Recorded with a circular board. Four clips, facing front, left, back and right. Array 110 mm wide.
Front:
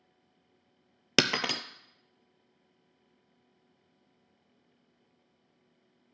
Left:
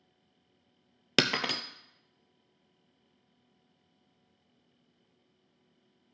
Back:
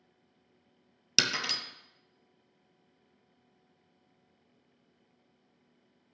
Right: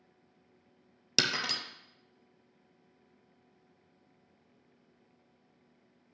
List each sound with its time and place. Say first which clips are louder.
1.2 s breaking glass: left 5 dB, front 6 dB; 30° left, 0.5 m